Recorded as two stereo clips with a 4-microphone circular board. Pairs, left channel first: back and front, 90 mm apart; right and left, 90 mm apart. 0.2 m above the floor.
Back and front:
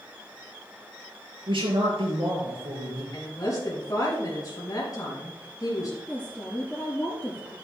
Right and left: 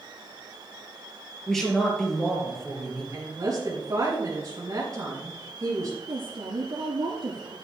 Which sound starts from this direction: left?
A woman speaking, at 6.1 s.